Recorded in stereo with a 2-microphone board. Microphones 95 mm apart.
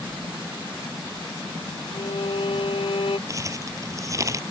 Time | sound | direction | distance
1.9 | a violin | 80° left | ?
3.3 | crumpling | 35° right (ahead or behind) | ?